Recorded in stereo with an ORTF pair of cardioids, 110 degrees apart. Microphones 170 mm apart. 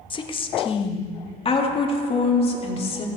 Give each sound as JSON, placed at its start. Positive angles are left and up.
{"t": 0.1, "sound": "a woman speaking", "azimuth_deg": 30, "distance_m": 1.5}